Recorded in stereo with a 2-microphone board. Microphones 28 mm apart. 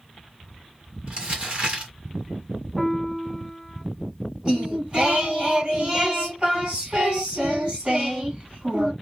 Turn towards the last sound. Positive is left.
turn(degrees=-30)  # may be behind; listen again after turning